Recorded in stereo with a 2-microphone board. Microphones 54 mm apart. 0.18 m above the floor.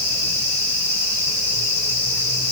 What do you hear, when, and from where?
Only background noise.